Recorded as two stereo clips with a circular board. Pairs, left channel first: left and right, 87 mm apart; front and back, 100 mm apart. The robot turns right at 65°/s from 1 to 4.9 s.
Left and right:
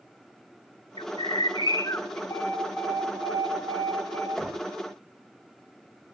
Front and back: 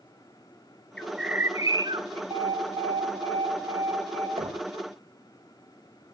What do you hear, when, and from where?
1.0 s a bird: 80° left, 1.0 m; by 2.2 s 160° left, 1.0 m
2.3 s an alarm: 145° left, 5 m; by 4.3 s 85° right, 5 m
4.4 s knocking: straight behind, 2.5 m; by 4.7 s 160° right, 2.5 m